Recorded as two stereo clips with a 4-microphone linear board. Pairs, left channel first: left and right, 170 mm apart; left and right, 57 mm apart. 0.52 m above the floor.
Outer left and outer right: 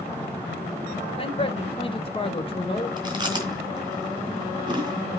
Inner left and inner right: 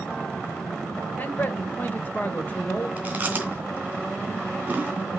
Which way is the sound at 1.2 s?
30° left (ahead or behind).